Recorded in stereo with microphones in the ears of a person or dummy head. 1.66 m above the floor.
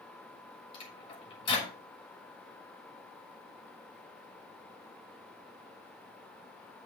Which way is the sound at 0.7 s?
30° left (ahead or behind).